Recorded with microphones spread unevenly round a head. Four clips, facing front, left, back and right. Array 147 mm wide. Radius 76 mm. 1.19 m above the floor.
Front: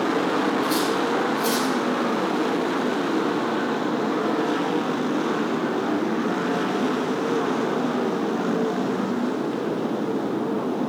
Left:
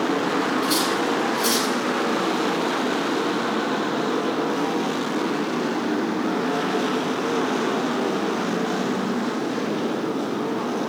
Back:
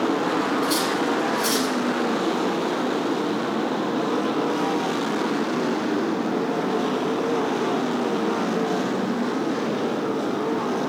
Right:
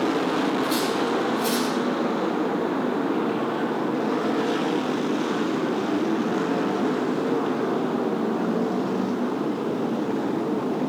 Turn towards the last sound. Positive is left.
turn(degrees=125)